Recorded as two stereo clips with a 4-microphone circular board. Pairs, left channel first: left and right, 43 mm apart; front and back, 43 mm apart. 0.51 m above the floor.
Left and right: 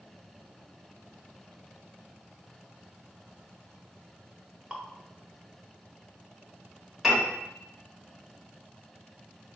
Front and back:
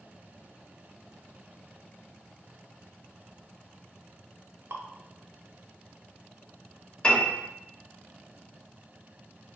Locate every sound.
4.7 s dripping: 165° right, 0.6 m
7.0 s a piano: 15° right, 1.2 m